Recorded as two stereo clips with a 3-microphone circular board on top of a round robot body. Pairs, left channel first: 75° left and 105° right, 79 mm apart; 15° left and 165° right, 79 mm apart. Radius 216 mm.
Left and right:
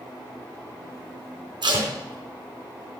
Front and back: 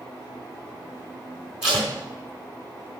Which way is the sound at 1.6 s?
85° right.